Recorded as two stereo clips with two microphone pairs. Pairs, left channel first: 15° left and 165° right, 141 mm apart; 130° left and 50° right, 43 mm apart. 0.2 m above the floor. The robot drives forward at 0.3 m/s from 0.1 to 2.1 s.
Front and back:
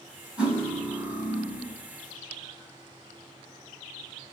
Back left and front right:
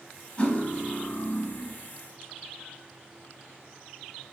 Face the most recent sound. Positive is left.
turn(degrees=160)